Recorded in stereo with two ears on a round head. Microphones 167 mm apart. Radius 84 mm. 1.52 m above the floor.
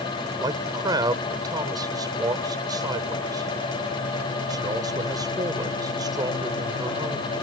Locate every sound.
0.4 s a man speaking: 25° right (ahead or behind)